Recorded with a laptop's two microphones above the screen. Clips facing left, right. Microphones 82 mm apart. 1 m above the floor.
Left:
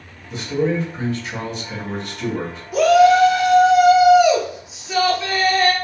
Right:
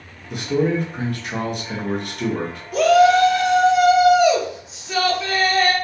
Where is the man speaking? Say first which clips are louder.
Right 1 dB; 55° right (ahead or behind), 0.8 m.